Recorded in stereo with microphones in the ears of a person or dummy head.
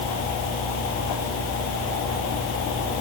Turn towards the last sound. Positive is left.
No sound to turn to.